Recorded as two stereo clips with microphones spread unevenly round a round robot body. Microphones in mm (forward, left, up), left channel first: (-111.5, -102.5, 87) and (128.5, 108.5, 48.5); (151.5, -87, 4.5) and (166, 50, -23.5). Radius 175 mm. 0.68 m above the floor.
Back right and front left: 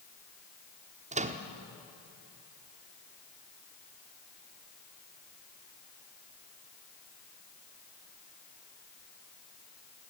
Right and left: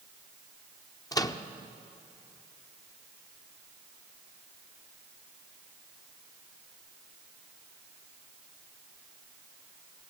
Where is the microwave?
25° right, 1.2 m.